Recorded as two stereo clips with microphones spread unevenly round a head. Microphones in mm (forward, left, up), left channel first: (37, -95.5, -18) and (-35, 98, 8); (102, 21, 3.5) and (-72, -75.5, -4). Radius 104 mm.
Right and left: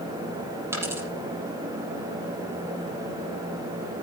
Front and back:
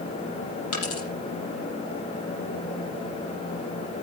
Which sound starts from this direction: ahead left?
A dropped coin, at 0.7 s.